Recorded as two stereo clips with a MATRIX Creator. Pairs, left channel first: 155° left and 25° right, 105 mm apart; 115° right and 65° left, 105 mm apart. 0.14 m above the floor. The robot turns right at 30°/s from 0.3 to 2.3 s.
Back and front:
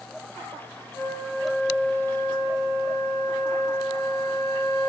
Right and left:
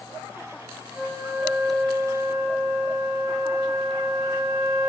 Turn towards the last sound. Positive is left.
turn(degrees=140)